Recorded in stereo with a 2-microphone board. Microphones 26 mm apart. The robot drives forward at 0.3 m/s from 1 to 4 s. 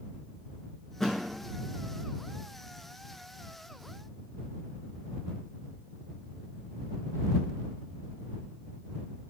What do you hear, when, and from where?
1.0 s a thud: 20° left (ahead or behind), 0.6 m